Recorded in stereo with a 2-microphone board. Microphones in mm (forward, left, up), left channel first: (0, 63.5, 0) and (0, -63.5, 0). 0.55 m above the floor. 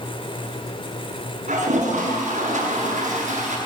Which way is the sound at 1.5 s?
70° right (ahead or behind).